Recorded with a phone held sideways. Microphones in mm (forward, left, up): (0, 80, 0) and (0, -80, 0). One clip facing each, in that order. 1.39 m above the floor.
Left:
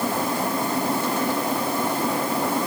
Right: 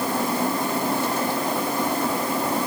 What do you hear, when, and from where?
Only background noise.